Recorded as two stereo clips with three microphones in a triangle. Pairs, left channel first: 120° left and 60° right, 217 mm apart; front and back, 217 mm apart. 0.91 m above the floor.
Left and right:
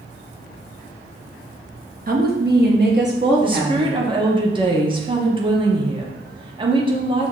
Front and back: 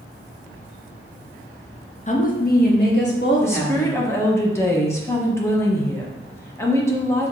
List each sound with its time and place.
2.1 s a woman speaking: 40° right, 0.6 m; by 4.0 s 30° right, 1.5 m
3.4 s a woman speaking: 60° right, 0.7 m